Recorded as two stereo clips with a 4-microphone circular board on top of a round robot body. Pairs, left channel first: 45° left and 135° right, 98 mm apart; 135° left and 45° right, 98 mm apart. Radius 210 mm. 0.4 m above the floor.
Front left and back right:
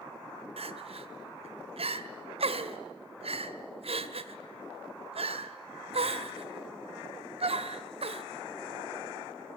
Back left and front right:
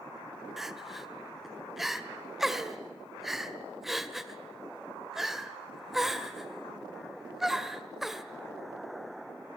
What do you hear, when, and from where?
0.6 s crying: 130° right, 1.8 m